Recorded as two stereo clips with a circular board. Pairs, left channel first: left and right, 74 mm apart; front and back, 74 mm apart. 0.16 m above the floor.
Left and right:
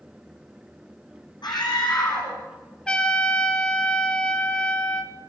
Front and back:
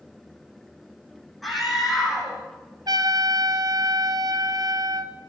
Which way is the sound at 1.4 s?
90° left.